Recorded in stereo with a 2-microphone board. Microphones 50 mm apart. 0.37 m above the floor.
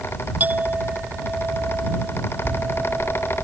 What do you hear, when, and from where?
0.4 s a clink: 35° right (ahead or behind)
2.5 s a bell: 40° left (ahead or behind)